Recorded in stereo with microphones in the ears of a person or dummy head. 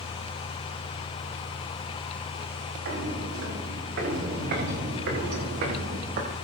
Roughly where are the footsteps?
Right.